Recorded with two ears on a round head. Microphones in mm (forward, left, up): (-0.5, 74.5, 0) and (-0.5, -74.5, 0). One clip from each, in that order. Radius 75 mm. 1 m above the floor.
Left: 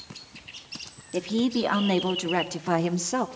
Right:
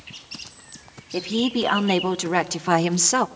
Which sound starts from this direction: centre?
A woman speaking, at 1.1 s.